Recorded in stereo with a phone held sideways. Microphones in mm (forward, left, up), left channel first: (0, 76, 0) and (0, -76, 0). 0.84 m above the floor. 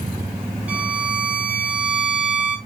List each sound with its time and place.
0.7 s a violin: 10° right (ahead or behind), 0.5 m